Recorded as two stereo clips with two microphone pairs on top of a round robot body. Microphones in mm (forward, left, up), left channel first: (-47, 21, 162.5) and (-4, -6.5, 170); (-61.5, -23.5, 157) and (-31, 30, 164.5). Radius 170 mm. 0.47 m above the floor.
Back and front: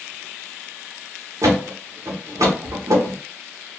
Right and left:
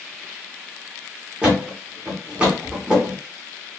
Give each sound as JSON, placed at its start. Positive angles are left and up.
{"t": 1.4, "sound": "a thud", "azimuth_deg": -15, "distance_m": 0.9}